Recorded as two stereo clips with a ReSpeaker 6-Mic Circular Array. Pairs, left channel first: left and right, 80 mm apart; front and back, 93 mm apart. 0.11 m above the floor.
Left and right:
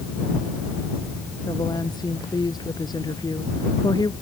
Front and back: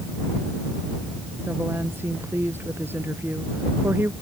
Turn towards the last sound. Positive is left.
turn(degrees=115)